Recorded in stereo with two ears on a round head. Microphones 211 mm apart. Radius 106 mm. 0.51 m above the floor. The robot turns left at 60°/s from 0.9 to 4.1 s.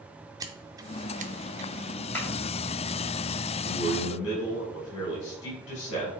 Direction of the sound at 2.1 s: 10° left (ahead or behind).